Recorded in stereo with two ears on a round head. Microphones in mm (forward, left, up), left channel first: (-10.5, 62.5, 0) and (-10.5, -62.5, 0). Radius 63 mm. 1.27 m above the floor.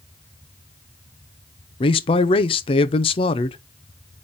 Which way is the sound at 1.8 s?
40° left (ahead or behind).